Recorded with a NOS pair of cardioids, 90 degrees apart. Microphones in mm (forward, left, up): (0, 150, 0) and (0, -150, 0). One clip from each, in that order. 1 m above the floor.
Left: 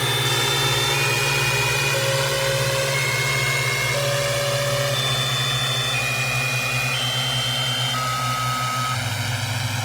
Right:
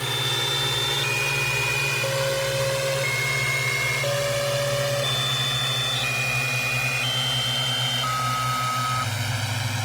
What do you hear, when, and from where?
0.0 s a drone: 40° left; by 9.8 s 10° left